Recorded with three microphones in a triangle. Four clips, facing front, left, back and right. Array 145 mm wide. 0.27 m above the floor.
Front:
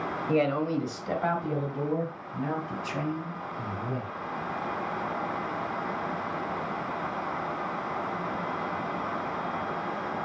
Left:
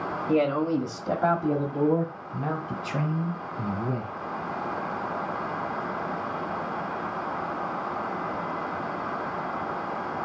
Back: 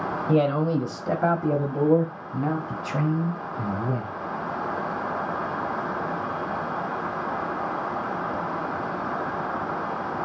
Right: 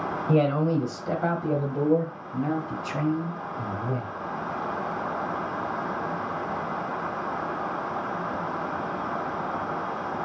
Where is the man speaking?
150° right, 1.1 m; by 4.1 s 145° left, 2.5 m.